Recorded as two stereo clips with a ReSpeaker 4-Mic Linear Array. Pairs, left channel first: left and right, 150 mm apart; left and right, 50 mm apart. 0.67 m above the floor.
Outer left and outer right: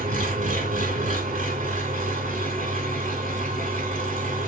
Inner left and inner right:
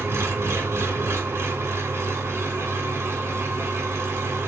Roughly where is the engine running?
Right.